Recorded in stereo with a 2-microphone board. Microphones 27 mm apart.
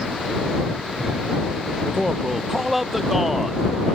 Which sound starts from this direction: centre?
A man speaking, at 1.9 s.